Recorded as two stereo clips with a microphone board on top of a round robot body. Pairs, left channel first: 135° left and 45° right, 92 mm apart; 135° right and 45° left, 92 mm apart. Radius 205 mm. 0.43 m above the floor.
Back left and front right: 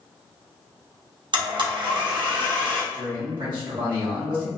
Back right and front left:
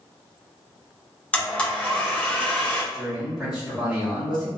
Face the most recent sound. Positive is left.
turn(degrees=-35)